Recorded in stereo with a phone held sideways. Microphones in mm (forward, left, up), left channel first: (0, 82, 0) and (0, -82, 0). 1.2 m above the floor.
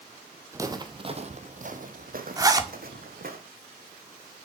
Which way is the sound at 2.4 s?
20° right (ahead or behind).